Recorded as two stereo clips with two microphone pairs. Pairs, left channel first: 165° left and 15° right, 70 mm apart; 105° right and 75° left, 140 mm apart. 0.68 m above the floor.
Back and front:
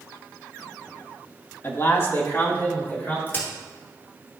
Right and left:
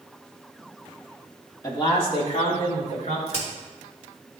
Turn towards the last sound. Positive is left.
turn(degrees=-140)